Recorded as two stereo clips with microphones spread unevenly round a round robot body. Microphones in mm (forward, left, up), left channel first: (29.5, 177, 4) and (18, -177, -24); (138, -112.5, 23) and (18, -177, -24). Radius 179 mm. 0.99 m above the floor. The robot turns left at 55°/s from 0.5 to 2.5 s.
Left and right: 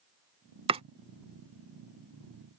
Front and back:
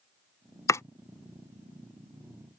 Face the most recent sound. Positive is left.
turn(degrees=-160)